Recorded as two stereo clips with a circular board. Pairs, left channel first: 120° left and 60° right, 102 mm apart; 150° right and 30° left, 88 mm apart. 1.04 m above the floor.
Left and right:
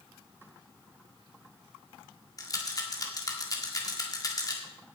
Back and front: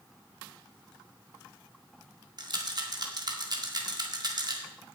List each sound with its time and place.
2.4 s a rattle: 65° left, 1.9 m